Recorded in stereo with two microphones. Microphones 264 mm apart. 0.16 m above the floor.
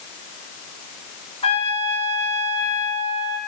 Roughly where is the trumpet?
Left.